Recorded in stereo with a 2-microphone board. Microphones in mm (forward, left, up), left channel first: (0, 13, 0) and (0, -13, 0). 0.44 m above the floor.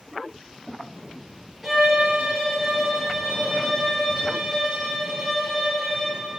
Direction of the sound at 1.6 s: 5° right (ahead or behind).